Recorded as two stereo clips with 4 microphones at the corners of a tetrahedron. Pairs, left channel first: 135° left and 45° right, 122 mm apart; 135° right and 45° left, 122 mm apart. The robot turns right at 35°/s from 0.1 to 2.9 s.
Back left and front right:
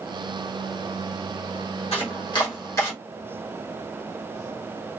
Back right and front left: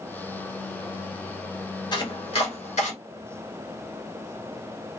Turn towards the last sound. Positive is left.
turn(degrees=-155)